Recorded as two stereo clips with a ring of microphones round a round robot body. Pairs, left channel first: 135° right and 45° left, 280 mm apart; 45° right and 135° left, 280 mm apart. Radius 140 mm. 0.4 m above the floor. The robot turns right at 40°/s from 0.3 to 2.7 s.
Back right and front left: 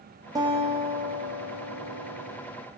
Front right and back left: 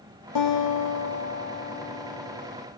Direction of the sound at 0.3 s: 35° right.